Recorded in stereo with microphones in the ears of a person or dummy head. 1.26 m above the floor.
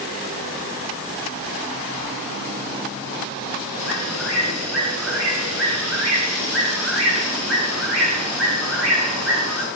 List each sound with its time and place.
3.8 s a bird: 5° left (ahead or behind), 9 m